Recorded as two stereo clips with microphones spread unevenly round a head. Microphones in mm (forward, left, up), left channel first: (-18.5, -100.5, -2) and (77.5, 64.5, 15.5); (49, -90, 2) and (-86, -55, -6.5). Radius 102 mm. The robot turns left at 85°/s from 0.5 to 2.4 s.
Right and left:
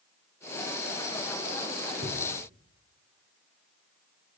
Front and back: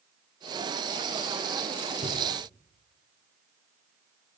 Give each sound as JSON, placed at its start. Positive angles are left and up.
{"t": 2.0, "sound": "a cupboard door", "azimuth_deg": 130, "distance_m": 9.0}